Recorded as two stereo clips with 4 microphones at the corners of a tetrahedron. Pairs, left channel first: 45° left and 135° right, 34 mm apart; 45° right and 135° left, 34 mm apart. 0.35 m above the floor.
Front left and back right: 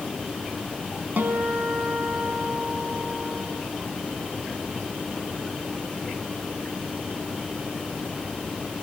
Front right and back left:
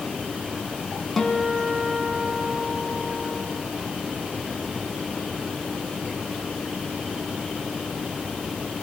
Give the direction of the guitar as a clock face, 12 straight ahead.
5 o'clock.